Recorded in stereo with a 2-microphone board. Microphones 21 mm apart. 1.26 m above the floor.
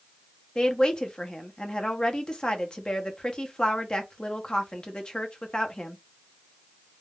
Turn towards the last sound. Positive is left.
turn(degrees=45)  # may be behind; listen again after turning